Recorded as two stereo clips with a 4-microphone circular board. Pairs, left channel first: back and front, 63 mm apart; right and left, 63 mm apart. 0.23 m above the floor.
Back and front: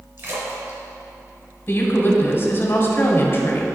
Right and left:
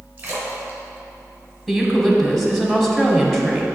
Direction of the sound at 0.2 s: 30° left.